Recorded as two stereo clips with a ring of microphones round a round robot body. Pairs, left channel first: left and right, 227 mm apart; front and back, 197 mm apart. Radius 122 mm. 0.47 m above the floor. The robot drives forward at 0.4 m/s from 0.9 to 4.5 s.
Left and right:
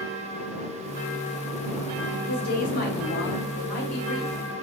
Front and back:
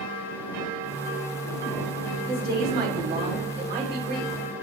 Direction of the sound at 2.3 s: 140° left.